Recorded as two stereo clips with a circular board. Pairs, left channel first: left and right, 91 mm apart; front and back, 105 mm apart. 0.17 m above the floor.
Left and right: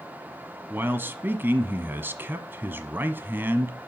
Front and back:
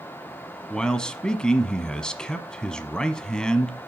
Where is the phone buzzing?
I don't hear a phone buzzing.